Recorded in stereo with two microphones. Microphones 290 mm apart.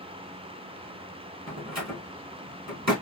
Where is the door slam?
65° right (ahead or behind), 2 m.